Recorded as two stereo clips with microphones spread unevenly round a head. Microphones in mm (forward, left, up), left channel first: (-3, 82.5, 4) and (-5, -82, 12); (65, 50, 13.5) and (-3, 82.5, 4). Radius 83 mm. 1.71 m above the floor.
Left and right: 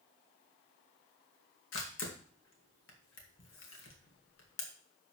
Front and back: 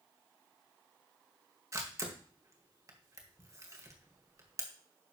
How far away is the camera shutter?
About 2 m.